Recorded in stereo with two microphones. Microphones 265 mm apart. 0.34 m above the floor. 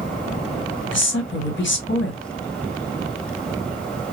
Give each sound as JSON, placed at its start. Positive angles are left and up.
{"t": 0.9, "sound": "a woman speaking", "side_deg": 45, "distance_m": 1.9}